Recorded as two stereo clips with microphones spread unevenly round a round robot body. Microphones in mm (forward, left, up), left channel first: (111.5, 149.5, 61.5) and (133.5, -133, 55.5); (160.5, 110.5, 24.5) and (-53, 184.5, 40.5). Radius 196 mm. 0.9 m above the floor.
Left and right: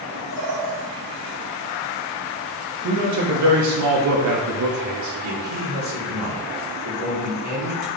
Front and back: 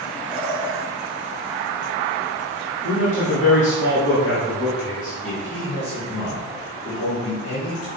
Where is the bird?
140° left, 3 m.